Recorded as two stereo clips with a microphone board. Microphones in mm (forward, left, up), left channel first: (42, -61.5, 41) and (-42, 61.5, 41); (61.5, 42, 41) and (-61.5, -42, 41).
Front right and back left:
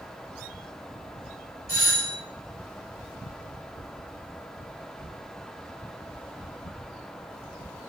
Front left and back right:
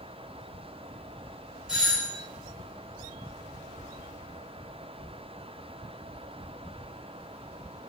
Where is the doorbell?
140° left, 1.4 m.